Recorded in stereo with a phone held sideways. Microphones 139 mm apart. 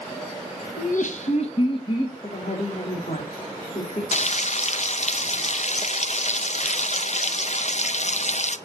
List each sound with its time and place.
0.8 s laughter: 75° left (ahead or behind), 1.3 m; by 2.1 s 30° left (ahead or behind), 2.5 m
2.2 s a woman speaking: 55° left (ahead or behind), 2.5 m
4.1 s frying: 55° left (ahead or behind), 0.6 m